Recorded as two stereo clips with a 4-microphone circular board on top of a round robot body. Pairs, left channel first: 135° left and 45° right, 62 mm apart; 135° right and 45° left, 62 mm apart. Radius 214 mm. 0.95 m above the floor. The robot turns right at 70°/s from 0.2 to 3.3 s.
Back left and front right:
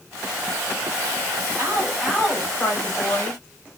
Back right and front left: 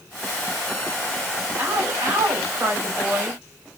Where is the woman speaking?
Straight ahead, 2.5 m; by 3.4 s 120° left, 2.5 m.